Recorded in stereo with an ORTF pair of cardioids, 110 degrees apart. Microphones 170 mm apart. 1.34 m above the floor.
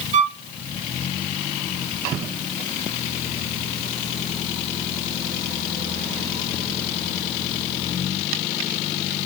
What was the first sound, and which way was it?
A violin, 45° right.